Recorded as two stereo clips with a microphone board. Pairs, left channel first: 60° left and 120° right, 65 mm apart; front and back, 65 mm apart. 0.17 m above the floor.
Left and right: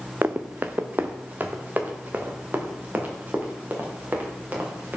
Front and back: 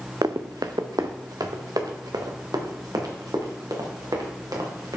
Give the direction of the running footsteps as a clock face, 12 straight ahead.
6 o'clock.